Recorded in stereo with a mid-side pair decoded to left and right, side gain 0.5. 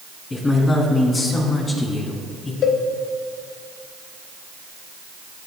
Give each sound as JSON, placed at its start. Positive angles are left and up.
{"t": 0.3, "sound": "a man speaking", "azimuth_deg": 30, "distance_m": 4.0}
{"t": 2.6, "sound": "a cowbell", "azimuth_deg": 60, "distance_m": 1.0}